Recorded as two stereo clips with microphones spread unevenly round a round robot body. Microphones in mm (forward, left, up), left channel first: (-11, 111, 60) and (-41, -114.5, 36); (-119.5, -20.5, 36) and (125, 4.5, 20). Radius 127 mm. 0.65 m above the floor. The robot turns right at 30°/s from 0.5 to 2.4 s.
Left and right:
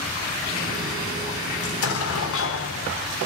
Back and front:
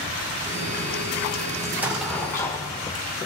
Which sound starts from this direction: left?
An explosion, at 1.6 s.